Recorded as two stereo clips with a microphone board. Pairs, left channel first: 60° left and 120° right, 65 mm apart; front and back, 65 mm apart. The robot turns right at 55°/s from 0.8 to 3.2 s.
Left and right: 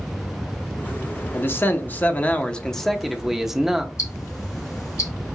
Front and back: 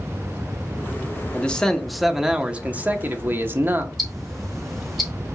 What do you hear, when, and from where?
1.3 s a man speaking: 55° left, 0.7 m; by 3.9 s 160° left, 0.7 m
4.0 s ticking: 85° left, 1.3 m